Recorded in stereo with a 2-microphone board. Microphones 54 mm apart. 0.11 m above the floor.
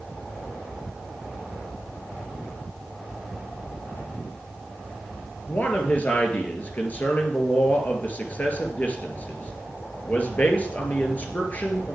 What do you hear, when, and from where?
5.5 s a man speaking: 30° left (ahead or behind), 2 m